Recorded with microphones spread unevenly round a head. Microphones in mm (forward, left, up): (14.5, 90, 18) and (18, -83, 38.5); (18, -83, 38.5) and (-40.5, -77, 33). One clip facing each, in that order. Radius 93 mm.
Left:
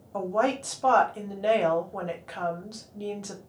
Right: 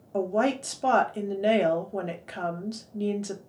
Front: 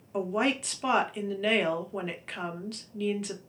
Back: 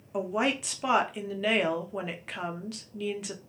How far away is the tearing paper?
No tearing paper in this recording.